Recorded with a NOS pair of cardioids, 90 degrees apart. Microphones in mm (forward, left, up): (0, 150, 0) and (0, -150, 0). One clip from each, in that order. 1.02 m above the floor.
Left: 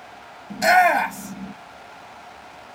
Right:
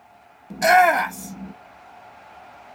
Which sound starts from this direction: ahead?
A shout, at 0.5 s.